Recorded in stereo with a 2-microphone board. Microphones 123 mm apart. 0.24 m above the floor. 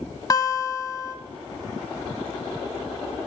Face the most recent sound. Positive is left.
turn(degrees=30)  # may be behind; listen again after turning